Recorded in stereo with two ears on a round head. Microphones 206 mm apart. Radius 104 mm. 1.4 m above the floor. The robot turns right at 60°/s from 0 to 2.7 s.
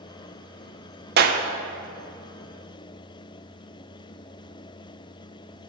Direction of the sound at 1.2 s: 45° right (ahead or behind).